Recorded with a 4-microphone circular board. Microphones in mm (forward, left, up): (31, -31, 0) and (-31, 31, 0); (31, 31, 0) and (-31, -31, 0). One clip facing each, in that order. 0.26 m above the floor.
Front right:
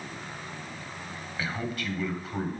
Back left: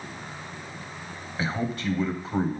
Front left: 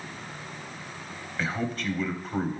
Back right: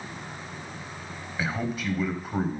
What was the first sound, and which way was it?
A man speaking, 150° left.